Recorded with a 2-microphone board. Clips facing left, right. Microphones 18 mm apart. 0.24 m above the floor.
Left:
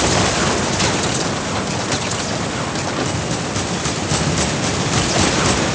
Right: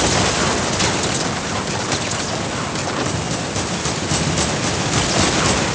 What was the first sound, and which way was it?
Only background noise.